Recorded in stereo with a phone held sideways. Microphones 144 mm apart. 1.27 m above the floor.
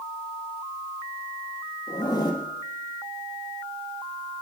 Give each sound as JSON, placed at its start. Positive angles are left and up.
{"t": 1.9, "sound": "a zipper", "side_deg": 30, "distance_m": 1.5}